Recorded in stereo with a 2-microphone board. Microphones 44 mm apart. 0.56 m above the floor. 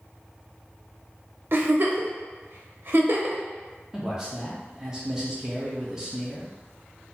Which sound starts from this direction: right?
A giggle, at 1.5 s.